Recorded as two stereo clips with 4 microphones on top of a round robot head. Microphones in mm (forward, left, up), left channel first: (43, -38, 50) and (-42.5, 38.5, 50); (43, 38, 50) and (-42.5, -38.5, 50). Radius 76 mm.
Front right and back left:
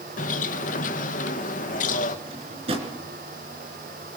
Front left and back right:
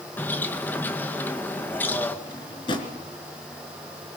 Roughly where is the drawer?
Left.